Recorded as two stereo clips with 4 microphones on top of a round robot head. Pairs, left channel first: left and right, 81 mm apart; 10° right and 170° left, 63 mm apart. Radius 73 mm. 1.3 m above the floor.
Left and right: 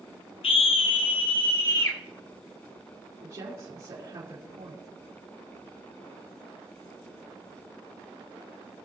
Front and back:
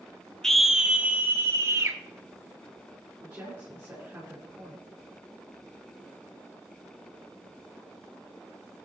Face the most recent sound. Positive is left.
turn(degrees=-115)